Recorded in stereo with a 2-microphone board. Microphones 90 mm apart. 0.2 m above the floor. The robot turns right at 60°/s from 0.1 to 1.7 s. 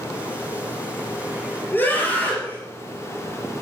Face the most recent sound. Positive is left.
turn(degrees=20)  # may be behind; listen again after turning